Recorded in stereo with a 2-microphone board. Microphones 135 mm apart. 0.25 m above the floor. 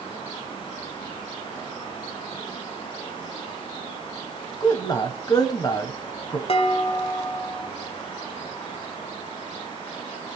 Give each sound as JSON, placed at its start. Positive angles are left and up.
{"t": 4.6, "sound": "a man speaking", "side_deg": 30, "distance_m": 1.1}
{"t": 6.5, "sound": "dishes clattering", "side_deg": 50, "distance_m": 0.9}